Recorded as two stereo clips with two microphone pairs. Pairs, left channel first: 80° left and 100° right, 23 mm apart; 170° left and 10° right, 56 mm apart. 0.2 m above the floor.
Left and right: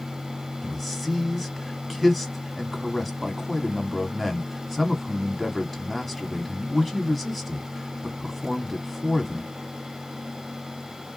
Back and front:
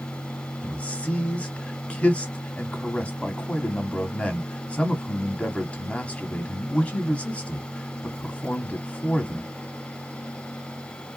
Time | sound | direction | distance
0.6 | a man speaking | 175° left | 1.1 m